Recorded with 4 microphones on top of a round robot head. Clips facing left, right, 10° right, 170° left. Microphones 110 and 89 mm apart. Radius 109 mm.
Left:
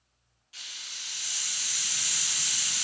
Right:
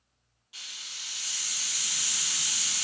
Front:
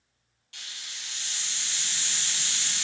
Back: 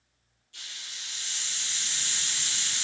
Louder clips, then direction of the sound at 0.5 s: Even, front 1 dB; 15° right.